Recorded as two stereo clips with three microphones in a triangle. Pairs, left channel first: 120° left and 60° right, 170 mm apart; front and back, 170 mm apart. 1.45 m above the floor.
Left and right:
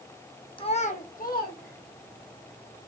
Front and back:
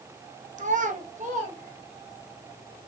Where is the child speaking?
165° left, 0.6 m; by 2.3 s 135° left, 2.5 m.